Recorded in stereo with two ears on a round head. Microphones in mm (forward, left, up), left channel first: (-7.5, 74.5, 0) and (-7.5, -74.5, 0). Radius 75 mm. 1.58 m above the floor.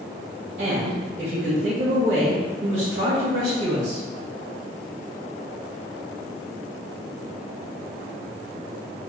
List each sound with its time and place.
0.6 s a woman speaking: 45° right (ahead or behind), 1.1 m